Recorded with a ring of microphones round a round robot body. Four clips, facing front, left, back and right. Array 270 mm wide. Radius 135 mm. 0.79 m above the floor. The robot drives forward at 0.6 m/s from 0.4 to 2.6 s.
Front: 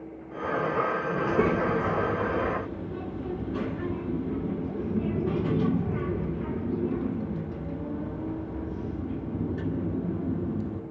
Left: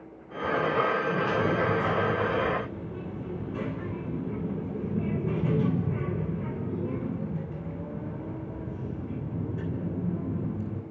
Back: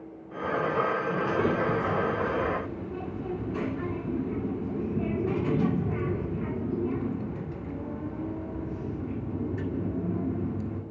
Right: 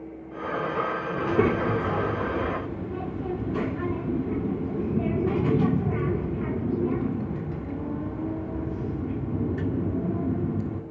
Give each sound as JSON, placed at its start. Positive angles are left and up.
{"t": 1.2, "sound": "a child speaking", "azimuth_deg": -70, "distance_m": 1.7}